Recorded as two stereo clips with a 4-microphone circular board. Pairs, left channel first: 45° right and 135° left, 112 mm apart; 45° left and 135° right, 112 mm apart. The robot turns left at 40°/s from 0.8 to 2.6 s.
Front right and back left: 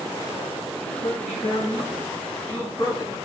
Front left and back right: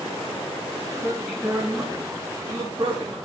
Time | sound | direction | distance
0.9 | a man speaking | 25° right | 1.8 m